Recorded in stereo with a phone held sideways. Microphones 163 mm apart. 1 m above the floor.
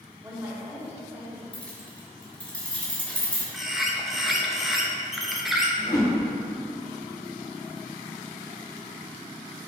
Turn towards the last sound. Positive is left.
turn(degrees=25)  # may be behind; listen again after turning